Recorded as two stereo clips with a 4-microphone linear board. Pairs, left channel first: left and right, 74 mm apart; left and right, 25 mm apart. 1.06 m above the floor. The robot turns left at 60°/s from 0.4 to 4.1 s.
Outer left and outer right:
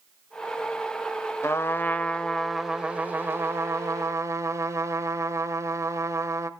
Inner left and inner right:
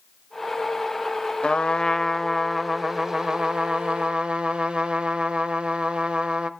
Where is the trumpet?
65° left, 1.0 m; by 6.5 s 95° right, 1.0 m.